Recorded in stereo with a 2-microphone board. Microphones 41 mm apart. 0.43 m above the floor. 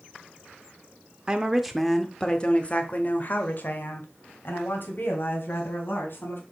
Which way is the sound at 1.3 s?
20° right (ahead or behind).